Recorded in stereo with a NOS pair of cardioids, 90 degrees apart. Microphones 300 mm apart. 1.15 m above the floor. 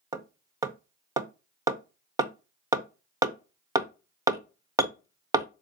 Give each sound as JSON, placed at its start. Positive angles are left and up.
{"t": 0.1, "sound": "hammering", "azimuth_deg": -10, "distance_m": 0.6}